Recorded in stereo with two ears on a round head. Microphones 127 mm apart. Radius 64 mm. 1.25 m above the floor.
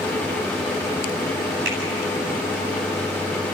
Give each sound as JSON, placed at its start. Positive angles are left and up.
{"t": 1.6, "sound": "a finger snap", "side_deg": -75, "distance_m": 9.0}